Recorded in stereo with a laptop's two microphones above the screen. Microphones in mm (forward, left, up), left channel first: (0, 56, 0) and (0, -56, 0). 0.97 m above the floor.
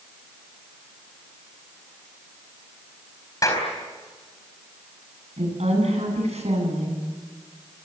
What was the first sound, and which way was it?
A clap, 30° left (ahead or behind).